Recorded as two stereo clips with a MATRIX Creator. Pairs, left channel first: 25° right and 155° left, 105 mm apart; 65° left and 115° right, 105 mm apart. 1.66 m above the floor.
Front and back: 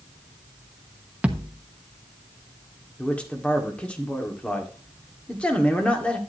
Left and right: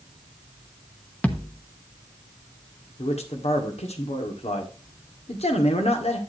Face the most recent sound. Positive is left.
turn(degrees=55)